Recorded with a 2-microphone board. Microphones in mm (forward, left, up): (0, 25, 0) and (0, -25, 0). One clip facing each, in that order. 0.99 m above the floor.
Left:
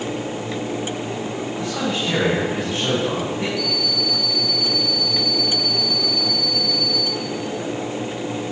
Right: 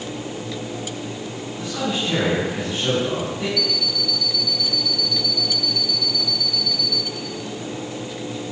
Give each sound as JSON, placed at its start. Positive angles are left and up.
{"t": 1.6, "sound": "a man speaking", "side_deg": 35, "distance_m": 8.0}
{"t": 3.6, "sound": "an alarm clock", "side_deg": 25, "distance_m": 0.8}